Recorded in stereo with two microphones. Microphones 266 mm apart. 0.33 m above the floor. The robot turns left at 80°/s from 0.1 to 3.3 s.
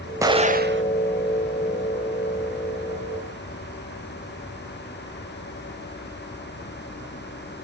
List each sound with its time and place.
0.2 s an explosion: 15° right, 0.8 m; by 0.8 s 65° right, 0.8 m